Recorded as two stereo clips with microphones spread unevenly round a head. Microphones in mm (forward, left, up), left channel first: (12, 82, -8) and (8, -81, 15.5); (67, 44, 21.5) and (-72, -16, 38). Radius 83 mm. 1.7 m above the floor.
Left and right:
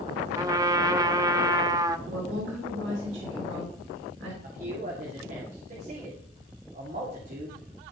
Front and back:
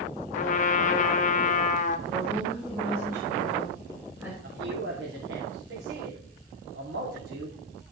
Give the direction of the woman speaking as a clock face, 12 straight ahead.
3 o'clock.